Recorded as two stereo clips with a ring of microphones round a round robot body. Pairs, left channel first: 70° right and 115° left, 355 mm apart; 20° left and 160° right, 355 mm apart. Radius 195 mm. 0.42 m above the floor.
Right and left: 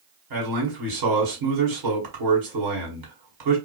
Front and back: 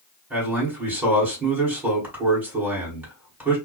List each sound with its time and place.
0.3 s a man speaking: 115° left, 1.7 m